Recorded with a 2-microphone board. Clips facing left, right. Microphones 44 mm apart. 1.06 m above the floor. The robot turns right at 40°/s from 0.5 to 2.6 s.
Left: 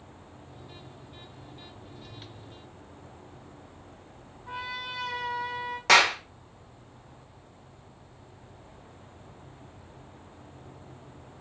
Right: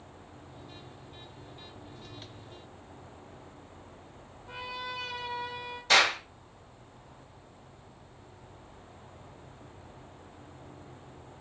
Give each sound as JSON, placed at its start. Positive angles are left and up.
{"t": 4.5, "sound": "a trumpet", "side_deg": 65, "distance_m": 1.2}
{"t": 5.9, "sound": "a clap", "side_deg": 85, "distance_m": 0.8}